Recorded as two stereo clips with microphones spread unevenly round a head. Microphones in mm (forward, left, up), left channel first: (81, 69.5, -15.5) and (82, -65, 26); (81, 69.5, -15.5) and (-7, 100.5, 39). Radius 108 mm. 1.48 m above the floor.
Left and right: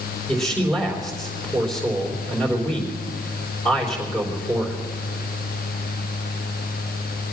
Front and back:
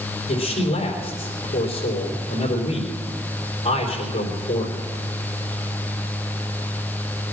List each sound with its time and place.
0.3 s a man speaking: 5° left, 4 m